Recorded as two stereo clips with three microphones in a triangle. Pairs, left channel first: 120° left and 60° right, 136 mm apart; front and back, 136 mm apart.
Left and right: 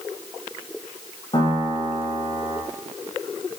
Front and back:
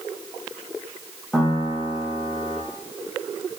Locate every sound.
1.3 s a piano: 90° left, 1.0 m